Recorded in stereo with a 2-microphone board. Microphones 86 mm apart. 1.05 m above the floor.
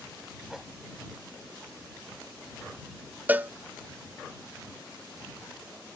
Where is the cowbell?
20° right (ahead or behind).